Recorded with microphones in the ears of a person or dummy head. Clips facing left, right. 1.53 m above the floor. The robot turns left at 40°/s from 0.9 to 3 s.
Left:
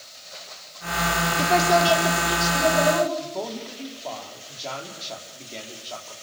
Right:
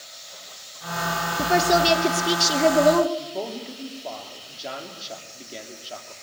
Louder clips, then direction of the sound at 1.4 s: Even; 10° right.